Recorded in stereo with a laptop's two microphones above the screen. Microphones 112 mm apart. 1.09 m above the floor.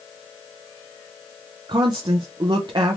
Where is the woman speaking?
45° right (ahead or behind), 0.6 m.